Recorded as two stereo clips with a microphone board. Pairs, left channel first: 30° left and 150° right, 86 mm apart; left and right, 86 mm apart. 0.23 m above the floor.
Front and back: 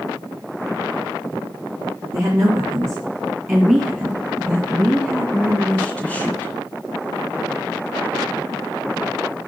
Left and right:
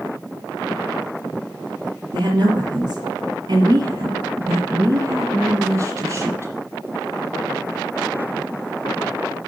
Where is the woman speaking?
100° right, 2.5 m; by 6.5 s 35° right, 2 m.